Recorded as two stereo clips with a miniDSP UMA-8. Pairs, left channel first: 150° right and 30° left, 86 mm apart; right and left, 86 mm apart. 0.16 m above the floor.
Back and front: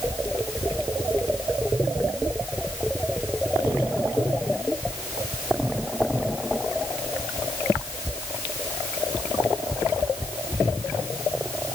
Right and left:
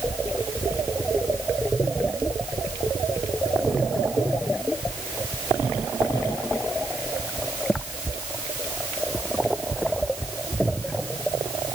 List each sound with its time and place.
Only background noise.